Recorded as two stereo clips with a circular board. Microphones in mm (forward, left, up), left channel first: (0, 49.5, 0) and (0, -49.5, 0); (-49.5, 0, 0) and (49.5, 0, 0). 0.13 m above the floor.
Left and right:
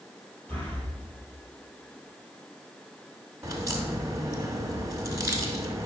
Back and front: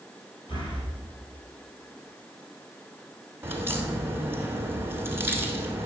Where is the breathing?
165° left, 3 m.